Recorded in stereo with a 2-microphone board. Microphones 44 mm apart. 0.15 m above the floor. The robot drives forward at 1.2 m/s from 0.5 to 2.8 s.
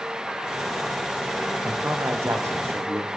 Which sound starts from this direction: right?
A man speaking, at 1.6 s.